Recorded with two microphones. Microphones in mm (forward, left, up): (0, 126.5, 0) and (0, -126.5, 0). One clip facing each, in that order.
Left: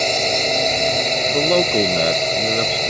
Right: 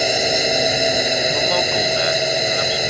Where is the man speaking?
40° left (ahead or behind).